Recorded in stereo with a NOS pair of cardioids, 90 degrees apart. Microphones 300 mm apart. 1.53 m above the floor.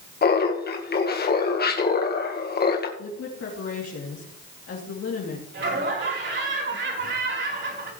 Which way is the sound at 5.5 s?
40° right.